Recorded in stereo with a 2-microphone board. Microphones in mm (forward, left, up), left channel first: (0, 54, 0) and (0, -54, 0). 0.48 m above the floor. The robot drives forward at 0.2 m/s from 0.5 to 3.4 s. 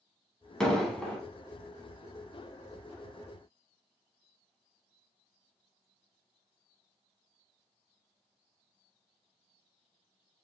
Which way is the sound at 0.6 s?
5° left (ahead or behind).